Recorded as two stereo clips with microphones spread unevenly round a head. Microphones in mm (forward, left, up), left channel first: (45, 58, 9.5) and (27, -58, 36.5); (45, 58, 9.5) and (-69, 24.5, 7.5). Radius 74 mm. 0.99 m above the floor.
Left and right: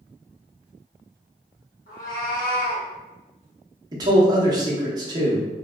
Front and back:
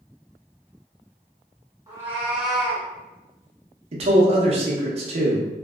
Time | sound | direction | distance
1.9 | a cat meowing | 130° left | 1.4 m
3.9 | a man speaking | 165° right | 0.7 m